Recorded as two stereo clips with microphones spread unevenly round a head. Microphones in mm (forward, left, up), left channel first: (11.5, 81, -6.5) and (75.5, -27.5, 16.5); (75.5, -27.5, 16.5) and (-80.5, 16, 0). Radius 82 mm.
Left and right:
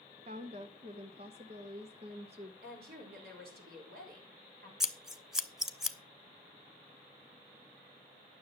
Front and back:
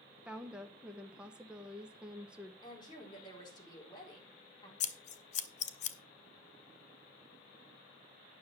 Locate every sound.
0.2 s a woman speaking: 115° right, 0.7 m
2.6 s a woman speaking: 80° right, 4 m
4.8 s scissors: 20° left, 0.9 m